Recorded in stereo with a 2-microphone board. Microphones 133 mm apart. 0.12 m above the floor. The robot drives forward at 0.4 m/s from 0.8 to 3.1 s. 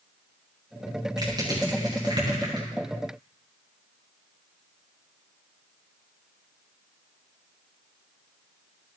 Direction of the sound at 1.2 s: 30° right (ahead or behind).